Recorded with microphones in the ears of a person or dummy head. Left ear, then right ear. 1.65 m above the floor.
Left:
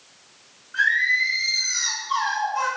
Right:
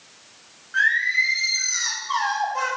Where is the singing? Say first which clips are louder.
Even; 35° right (ahead or behind), 1.7 m.